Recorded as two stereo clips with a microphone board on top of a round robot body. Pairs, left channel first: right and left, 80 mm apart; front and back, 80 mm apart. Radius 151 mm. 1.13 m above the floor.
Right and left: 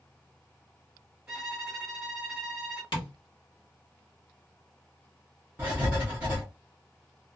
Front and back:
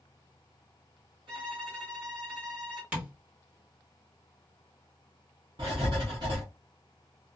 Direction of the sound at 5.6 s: 155° left.